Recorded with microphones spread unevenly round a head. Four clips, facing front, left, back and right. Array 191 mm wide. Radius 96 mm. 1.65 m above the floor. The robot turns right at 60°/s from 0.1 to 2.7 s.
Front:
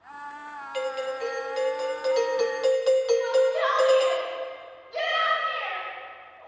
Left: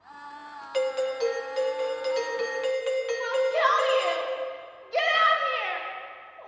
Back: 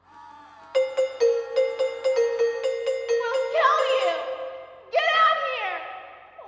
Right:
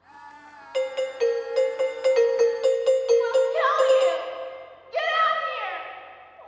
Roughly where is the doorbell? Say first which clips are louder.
Right 1 dB, back 8 dB; behind.